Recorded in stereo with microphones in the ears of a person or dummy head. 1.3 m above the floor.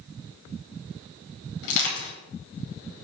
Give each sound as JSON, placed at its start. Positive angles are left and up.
{"t": 1.6, "sound": "crushing", "side_deg": 70, "distance_m": 5.0}